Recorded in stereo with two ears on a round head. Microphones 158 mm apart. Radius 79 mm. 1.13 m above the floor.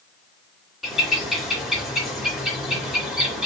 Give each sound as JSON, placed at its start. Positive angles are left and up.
{"t": 0.8, "sound": "a bird", "side_deg": 0, "distance_m": 3.0}